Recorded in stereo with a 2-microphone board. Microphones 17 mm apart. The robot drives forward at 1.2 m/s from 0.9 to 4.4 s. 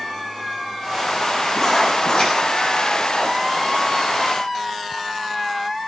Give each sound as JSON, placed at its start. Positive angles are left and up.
{"t": 1.6, "sound": "writing", "side_deg": 35, "distance_m": 5.5}